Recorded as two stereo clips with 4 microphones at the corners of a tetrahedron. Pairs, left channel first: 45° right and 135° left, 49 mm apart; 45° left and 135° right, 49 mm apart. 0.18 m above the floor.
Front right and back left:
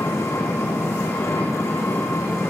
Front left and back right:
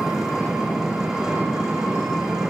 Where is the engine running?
55° right, 7.5 m.